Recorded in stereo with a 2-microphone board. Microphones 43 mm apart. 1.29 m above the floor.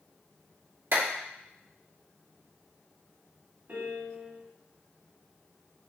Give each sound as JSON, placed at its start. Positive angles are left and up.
{"t": 0.9, "sound": "a clap", "side_deg": -70, "distance_m": 1.8}
{"t": 3.7, "sound": "a piano", "side_deg": -50, "distance_m": 1.0}